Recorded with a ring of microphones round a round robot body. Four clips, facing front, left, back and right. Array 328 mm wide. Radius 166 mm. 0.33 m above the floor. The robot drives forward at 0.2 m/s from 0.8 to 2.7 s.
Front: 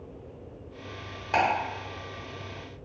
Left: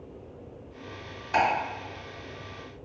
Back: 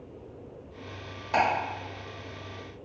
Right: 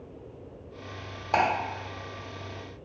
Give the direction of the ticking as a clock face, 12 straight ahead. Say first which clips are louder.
Even, even; 2 o'clock.